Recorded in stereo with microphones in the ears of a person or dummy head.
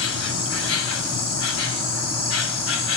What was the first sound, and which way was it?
An insect, 85° left.